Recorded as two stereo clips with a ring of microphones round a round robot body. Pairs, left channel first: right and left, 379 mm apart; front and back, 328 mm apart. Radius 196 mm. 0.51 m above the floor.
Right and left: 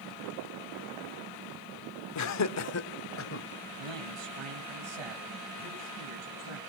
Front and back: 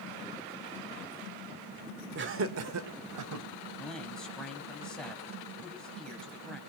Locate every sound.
2.1 s laughter: 125° right, 1.4 m; by 3.5 s 145° right, 2.5 m
3.8 s a man speaking: 85° left, 4 m